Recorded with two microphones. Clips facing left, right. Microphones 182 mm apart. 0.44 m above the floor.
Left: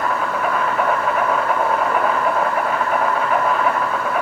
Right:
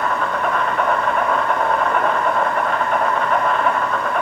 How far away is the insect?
About 1.1 m.